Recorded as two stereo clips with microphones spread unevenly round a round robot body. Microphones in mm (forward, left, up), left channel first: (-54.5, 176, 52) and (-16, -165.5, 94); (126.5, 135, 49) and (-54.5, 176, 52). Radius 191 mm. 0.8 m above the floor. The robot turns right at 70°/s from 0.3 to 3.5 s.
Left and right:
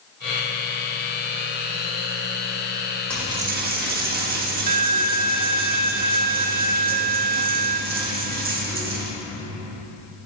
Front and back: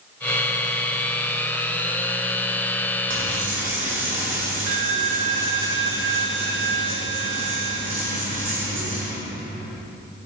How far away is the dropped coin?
About 1.5 m.